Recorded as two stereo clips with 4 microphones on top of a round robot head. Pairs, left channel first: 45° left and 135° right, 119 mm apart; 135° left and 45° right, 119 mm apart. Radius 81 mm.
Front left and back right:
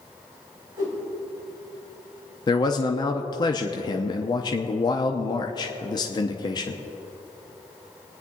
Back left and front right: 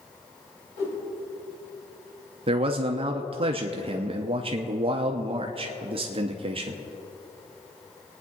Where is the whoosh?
165° left, 4.5 m.